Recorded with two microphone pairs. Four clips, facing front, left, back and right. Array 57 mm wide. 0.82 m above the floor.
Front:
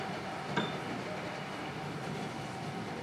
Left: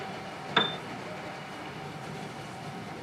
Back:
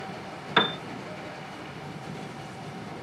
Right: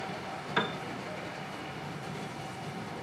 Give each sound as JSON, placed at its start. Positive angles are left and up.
{"t": 0.6, "sound": "a piano", "azimuth_deg": 160, "distance_m": 0.6}